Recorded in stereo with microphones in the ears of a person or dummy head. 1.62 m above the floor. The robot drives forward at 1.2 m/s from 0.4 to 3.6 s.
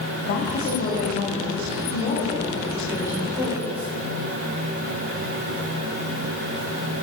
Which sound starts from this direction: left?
A woman speaking, at 0.2 s.